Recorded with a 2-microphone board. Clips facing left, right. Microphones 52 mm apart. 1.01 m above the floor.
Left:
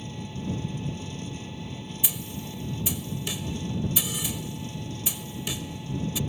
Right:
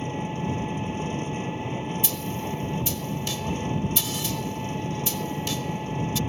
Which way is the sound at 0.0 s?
40° right (ahead or behind).